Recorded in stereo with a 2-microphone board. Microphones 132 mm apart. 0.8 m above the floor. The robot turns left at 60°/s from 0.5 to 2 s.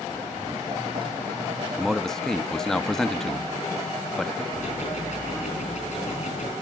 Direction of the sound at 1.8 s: 10° right (ahead or behind).